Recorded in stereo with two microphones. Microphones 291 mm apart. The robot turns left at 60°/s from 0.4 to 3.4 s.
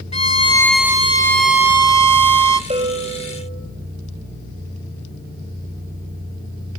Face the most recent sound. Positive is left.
turn(degrees=160)